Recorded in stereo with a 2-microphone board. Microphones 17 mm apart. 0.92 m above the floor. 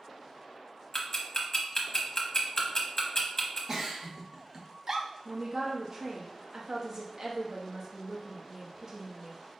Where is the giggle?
40° right (ahead or behind), 0.8 m.